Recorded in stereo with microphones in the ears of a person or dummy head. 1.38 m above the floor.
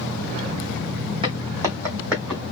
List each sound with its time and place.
1.2 s footsteps: 25° right (ahead or behind), 3 m; by 2.4 s 5° left (ahead or behind), 3 m